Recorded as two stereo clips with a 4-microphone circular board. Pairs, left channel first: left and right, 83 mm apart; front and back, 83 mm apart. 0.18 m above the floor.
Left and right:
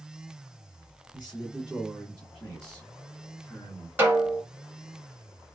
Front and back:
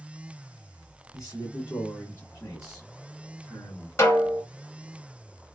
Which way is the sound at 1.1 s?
25° right.